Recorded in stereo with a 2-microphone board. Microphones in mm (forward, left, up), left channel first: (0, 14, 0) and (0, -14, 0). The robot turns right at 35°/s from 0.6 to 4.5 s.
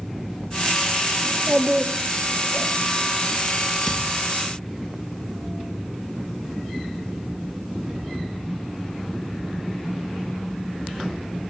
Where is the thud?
10° right (ahead or behind), 3.5 m; by 4.2 s 20° right (ahead or behind), 3.5 m.